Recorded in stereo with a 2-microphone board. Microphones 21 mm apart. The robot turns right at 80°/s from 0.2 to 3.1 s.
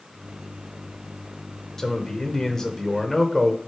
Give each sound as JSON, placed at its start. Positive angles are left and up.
{"t": 1.8, "sound": "a man speaking", "azimuth_deg": 55, "distance_m": 0.9}